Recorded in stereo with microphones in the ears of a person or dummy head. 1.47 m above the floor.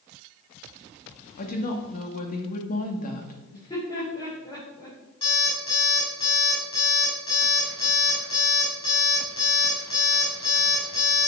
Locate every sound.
1.4 s a woman speaking: 50° left (ahead or behind), 2 m
3.5 s laughter: 30° left (ahead or behind), 5.5 m
5.2 s an alarm clock: 30° left (ahead or behind), 5.5 m